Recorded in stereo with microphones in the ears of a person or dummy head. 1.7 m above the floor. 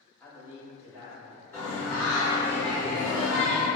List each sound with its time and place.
0.2 s a man speaking: 15° left (ahead or behind), 1.3 m; by 1.4 s 25° left (ahead or behind), 3 m
1.5 s singing: 10° left (ahead or behind), 1.3 m